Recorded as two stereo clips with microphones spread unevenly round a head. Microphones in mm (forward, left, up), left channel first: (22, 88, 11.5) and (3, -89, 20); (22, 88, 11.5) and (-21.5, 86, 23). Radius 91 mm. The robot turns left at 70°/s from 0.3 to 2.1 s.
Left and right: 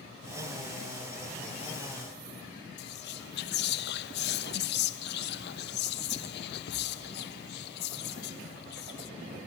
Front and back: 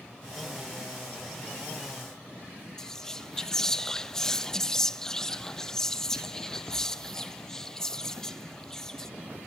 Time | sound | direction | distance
2.8 | whispering | 75° left | 0.8 m